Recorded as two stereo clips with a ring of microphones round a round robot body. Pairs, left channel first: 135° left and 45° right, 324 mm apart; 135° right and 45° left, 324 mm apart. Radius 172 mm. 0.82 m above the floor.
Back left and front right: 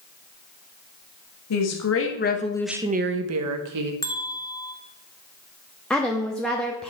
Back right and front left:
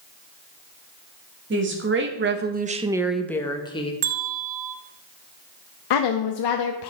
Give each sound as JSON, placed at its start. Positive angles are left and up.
{"t": 1.5, "sound": "a woman speaking", "azimuth_deg": 100, "distance_m": 1.8}
{"t": 4.0, "sound": "a bell", "azimuth_deg": 55, "distance_m": 1.3}
{"t": 5.9, "sound": "a woman speaking", "azimuth_deg": -140, "distance_m": 1.0}